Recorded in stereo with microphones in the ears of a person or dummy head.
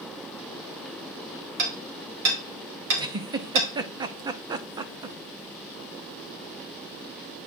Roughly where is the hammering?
Right.